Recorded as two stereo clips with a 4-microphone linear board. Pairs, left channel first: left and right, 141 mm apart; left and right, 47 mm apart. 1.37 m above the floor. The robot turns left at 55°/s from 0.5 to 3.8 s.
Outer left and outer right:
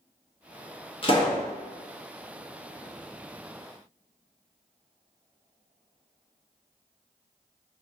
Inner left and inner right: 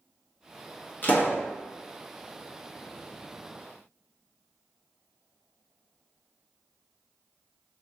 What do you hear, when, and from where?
1.0 s a pop: 40° left (ahead or behind), 0.8 m; by 1.4 s 30° left (ahead or behind), 0.8 m